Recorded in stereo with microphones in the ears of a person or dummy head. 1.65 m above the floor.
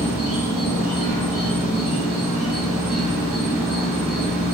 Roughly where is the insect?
Centre.